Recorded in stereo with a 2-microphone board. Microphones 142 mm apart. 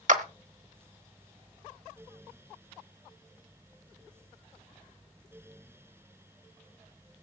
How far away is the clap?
About 1.2 m.